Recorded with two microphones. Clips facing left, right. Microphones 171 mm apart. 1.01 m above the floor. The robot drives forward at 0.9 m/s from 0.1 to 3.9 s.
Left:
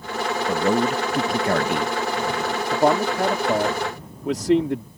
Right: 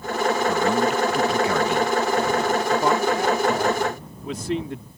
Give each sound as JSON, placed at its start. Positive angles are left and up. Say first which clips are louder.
{"t": 0.5, "sound": "a man speaking", "louder": "left 4 dB", "side_deg": 35}
{"t": 2.7, "sound": "a man speaking", "louder": "left 4 dB", "side_deg": 65}